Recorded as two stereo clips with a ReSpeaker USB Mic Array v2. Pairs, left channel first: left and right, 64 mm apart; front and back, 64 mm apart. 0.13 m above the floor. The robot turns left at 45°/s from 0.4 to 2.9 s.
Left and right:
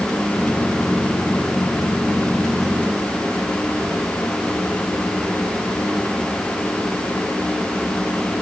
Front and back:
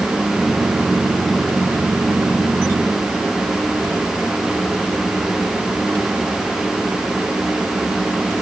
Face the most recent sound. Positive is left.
No sound to turn to.